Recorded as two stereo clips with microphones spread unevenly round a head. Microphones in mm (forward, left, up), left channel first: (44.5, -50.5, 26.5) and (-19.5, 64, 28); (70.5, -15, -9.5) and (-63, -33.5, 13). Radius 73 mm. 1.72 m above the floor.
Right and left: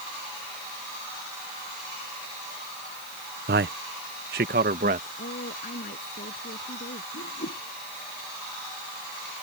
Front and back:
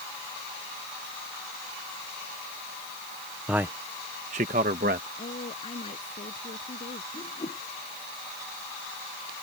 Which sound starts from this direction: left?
A man speaking, at 3.5 s.